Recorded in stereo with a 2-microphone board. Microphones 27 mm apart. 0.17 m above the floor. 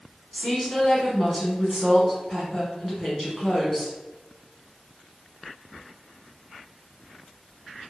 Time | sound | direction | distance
0.3 | a woman speaking | centre (ahead or behind) | 1.1 m